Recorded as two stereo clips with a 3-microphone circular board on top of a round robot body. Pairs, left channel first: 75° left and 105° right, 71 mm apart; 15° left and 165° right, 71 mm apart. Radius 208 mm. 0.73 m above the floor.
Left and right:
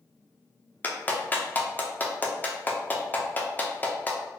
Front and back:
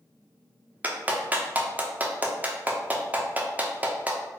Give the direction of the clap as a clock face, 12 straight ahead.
8 o'clock.